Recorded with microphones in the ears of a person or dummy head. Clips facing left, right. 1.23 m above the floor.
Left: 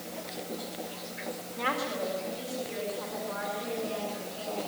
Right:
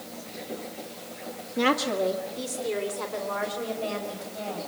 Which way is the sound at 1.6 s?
55° right (ahead or behind).